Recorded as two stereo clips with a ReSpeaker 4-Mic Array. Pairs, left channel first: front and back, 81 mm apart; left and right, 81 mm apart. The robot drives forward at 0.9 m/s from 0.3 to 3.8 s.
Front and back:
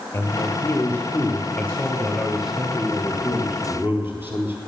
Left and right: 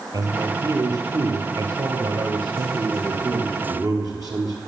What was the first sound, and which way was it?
A man speaking, 50° right.